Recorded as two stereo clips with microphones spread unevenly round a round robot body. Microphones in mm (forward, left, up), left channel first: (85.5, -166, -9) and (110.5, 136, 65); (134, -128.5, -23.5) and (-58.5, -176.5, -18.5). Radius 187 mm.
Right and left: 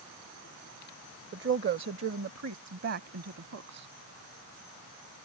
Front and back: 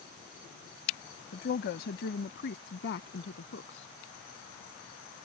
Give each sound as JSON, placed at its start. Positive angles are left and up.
{"t": 1.3, "sound": "a woman speaking", "azimuth_deg": 30}